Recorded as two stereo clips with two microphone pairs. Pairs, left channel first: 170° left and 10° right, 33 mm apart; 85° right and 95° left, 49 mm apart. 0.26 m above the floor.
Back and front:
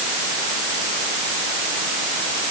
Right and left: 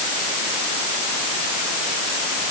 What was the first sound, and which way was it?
Only background noise.